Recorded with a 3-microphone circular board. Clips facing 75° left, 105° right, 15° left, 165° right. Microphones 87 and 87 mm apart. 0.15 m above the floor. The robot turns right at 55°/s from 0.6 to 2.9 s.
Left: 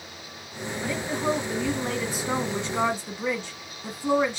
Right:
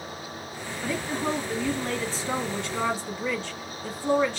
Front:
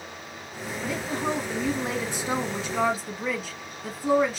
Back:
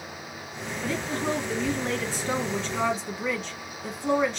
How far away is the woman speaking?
About 1.1 m.